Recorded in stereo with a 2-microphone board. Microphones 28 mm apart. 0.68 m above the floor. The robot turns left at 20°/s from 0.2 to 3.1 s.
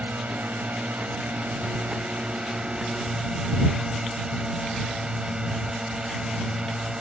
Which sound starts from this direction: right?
A drone, at 0.0 s.